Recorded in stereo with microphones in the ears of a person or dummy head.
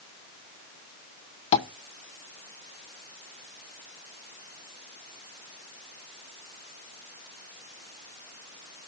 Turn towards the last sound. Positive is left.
turn(degrees=35)  # may be behind; listen again after turning